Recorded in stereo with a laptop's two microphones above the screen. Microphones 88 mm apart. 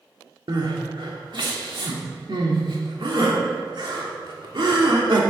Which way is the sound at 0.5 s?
65° right (ahead or behind).